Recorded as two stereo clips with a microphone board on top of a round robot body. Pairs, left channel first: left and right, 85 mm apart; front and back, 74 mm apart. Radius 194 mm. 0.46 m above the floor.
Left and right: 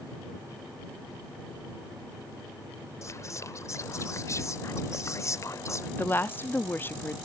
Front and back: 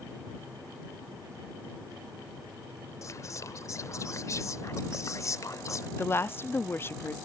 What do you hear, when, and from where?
3.0 s whispering: 40° left
6.0 s a woman speaking: 40° left